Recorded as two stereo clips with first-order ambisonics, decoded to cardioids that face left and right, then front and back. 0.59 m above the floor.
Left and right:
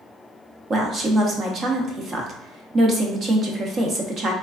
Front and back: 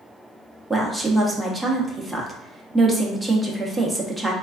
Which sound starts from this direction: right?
A woman speaking, at 0.7 s.